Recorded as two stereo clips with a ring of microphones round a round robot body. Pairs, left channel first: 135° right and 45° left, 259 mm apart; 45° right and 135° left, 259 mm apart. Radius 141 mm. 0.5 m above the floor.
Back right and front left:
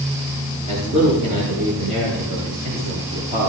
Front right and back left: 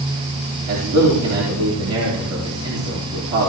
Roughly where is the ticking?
I don't hear ticking.